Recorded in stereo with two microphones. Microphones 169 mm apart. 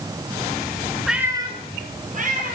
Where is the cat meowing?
Centre (ahead or behind), 1.0 m; by 2.5 s 55° right (ahead or behind), 2.5 m.